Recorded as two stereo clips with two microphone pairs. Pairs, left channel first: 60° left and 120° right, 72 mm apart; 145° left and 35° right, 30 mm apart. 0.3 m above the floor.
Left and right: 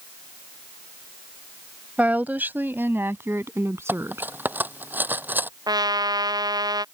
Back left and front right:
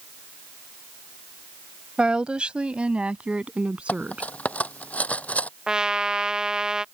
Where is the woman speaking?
60° right; by 4.3 s 70° right.